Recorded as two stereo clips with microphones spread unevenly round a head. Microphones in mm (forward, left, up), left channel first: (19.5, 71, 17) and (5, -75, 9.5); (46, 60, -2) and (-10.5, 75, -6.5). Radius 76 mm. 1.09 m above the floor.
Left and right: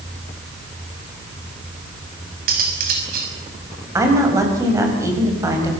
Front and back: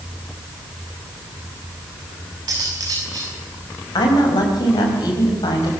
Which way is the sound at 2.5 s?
135° right.